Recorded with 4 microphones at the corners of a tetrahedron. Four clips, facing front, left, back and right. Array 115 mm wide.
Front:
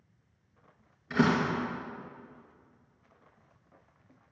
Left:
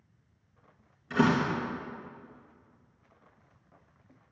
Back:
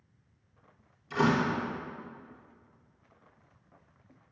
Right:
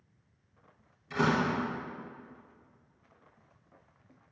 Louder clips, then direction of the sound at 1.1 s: Left 2 dB, even; 25° left.